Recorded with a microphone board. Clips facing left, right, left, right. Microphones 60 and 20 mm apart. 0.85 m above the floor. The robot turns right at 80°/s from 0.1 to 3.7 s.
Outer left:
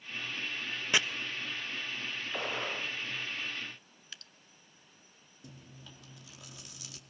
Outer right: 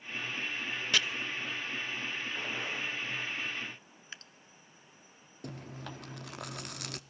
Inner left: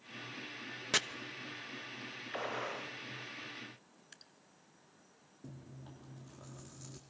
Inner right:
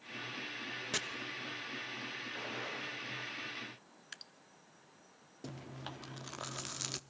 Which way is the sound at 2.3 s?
105° left.